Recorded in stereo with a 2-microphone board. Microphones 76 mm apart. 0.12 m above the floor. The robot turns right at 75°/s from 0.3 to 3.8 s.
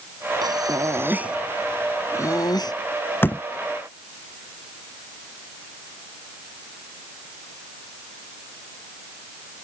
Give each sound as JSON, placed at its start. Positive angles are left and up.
{"t": 0.4, "sound": "breathing", "azimuth_deg": -85}
{"t": 3.2, "sound": "a door slam", "side_deg": 25}